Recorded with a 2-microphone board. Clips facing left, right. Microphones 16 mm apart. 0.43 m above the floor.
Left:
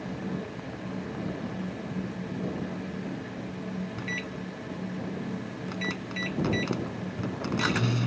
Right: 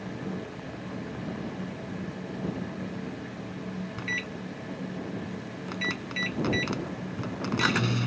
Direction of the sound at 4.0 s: 25° right (ahead or behind).